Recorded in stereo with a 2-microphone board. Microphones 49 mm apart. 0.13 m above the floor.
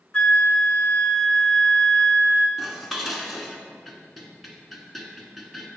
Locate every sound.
0.1 s a flute: 25° left (ahead or behind), 0.6 m
2.6 s dishes clattering: centre (ahead or behind), 1.0 m